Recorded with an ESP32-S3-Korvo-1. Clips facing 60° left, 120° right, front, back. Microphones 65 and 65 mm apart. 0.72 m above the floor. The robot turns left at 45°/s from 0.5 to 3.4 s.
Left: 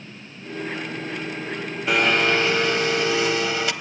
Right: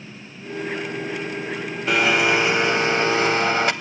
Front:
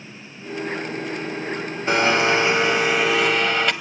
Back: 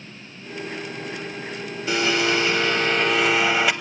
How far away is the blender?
About 0.6 m.